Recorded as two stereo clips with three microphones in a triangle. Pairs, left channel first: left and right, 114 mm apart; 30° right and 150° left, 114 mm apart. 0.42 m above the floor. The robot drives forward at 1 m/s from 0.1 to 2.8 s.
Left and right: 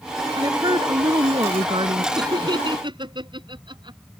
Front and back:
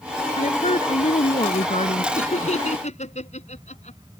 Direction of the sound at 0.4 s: 35° right.